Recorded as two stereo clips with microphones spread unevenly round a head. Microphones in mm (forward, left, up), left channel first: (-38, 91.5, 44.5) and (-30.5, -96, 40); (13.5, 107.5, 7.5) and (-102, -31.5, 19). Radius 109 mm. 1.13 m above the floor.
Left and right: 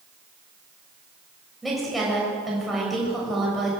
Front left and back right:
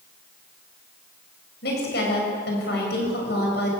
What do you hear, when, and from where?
1.6 s a woman speaking: straight ahead, 7 m